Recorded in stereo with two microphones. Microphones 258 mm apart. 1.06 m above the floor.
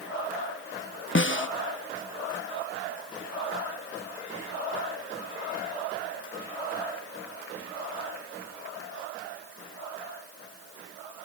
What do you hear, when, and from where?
1.1 s a snare drum: 50° left (ahead or behind), 0.6 m